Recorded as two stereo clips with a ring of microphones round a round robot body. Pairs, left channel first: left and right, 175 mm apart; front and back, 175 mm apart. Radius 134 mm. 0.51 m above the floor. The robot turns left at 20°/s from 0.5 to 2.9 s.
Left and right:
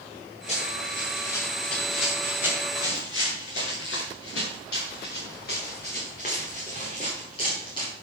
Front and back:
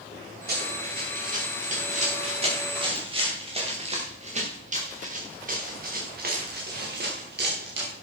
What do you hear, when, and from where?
0.5 s running footsteps: 150° left, 6.5 m; by 7.9 s 165° left, 5 m